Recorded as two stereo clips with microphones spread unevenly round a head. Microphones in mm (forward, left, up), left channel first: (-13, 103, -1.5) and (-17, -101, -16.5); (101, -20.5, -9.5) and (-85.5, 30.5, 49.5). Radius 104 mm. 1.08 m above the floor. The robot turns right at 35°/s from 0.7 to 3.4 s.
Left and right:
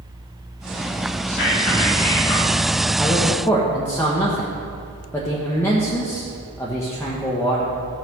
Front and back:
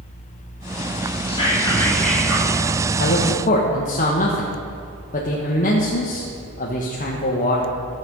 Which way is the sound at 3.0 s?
5° right.